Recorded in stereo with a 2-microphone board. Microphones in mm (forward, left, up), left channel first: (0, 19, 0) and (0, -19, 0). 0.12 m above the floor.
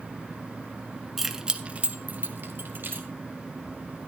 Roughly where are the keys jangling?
Centre.